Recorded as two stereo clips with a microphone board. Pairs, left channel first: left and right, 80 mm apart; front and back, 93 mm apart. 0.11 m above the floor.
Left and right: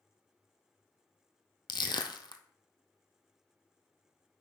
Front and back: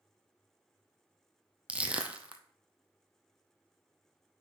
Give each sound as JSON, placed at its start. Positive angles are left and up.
{"t": 1.7, "sound": "crushing", "azimuth_deg": 105, "distance_m": 0.8}